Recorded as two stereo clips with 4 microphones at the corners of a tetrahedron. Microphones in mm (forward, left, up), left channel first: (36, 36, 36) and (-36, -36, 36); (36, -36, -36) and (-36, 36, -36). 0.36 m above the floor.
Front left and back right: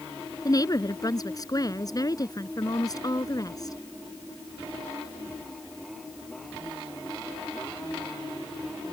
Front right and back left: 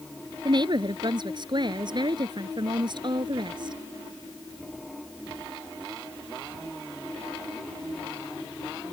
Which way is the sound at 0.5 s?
95° left.